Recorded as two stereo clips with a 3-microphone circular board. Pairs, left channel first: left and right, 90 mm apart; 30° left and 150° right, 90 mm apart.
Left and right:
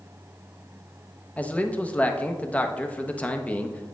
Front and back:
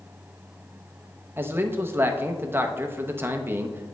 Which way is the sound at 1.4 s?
155° left.